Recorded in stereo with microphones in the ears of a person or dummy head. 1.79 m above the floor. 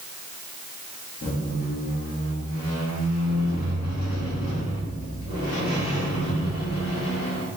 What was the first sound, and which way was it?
A squeak, 40° left (ahead or behind).